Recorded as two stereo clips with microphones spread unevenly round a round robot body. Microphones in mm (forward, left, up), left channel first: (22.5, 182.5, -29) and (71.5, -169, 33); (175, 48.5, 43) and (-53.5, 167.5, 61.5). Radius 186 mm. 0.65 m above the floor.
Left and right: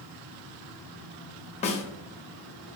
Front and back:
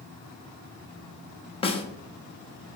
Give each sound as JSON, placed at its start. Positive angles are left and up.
{"t": 1.6, "sound": "a snare drum", "azimuth_deg": 35, "distance_m": 0.6}